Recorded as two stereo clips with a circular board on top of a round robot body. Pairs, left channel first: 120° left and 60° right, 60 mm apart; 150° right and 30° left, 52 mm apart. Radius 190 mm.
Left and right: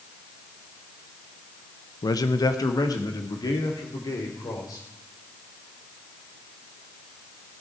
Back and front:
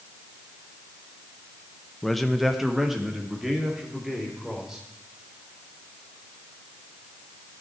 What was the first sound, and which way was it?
A man speaking, 125° left.